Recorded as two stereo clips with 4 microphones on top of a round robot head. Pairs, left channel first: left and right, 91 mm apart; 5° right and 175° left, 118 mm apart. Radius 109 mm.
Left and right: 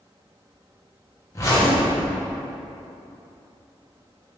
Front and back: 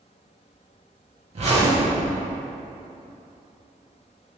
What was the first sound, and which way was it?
A zipper, 145° left.